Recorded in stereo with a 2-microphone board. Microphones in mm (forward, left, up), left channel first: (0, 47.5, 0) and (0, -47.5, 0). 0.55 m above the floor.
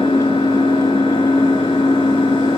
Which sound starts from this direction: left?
An engine running, at 0.0 s.